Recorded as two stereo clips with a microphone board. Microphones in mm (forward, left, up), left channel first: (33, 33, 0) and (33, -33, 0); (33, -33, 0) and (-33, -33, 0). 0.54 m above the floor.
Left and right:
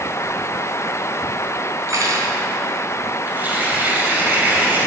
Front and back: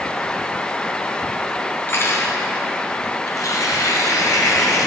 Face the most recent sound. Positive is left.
turn(degrees=-30)